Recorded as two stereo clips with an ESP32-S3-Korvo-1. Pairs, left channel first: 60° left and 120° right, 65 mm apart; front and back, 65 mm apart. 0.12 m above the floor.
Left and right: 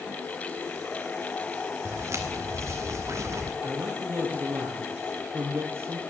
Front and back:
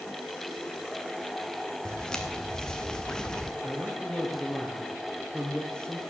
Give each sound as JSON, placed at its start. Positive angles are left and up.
{"t": 1.9, "sound": "footsteps", "azimuth_deg": -80, "distance_m": 2.5}
{"t": 3.6, "sound": "a man speaking", "azimuth_deg": -75, "distance_m": 3.0}